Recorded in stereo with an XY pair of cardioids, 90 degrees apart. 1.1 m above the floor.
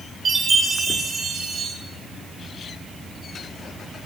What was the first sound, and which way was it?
A chime, 55° right.